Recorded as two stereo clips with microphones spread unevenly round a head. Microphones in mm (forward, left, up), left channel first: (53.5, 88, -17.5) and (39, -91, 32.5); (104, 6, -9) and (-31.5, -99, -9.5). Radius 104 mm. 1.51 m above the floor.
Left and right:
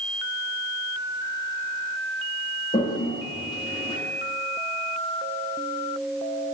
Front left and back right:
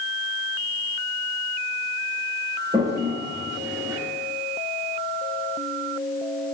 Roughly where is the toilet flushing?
Behind.